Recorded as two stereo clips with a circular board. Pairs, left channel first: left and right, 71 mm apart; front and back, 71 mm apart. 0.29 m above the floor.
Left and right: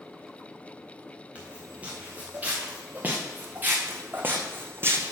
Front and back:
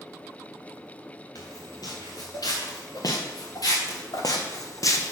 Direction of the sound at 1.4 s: 20° right.